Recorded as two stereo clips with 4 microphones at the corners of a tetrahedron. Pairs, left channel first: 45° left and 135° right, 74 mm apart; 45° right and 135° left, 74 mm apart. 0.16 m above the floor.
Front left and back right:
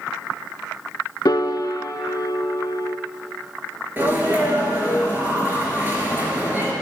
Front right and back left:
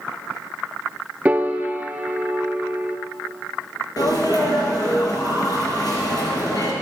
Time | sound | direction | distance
1.2 | a piano | 65° left | 0.5 m
4.0 | a sneeze | 75° right | 3 m